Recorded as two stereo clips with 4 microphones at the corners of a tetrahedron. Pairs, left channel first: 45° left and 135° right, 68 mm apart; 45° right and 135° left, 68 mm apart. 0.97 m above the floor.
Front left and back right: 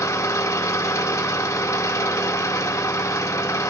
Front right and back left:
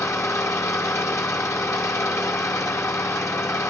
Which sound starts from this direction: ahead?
An engine running, at 0.0 s.